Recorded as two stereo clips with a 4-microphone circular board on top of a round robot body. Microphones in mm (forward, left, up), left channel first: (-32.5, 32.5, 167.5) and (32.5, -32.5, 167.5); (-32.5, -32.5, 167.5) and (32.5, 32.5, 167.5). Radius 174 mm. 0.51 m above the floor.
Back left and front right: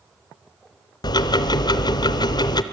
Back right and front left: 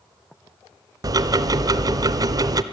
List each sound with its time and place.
1.0 s ticking: 95° left, 0.6 m